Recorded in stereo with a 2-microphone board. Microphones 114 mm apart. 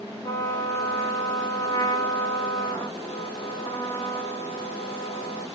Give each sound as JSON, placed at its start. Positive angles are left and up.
{"t": 0.2, "sound": "a trumpet", "side_deg": 30, "distance_m": 0.6}